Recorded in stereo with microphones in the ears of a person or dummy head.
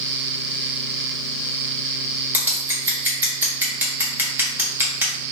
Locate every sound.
2.3 s scissors: 10° right (ahead or behind), 0.7 m